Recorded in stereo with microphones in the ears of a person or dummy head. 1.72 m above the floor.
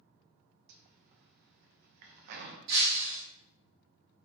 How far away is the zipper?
About 0.7 m.